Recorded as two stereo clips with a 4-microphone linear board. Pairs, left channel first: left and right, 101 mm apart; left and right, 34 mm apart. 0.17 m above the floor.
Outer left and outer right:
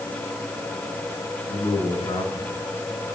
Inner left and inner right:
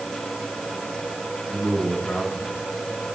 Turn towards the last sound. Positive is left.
turn(degrees=80)